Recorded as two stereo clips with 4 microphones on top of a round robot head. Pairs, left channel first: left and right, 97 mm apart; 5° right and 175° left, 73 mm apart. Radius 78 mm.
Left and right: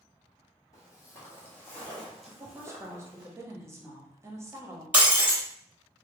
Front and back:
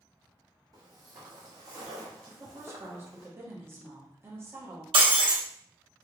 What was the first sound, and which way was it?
Footsteps, 145° left.